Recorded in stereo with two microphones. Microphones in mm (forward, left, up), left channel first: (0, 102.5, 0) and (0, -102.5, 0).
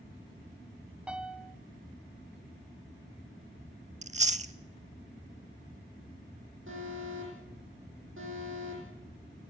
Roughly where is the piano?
Centre.